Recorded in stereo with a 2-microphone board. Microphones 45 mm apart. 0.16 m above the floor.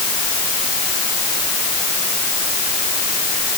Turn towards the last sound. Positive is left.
No sound to turn to.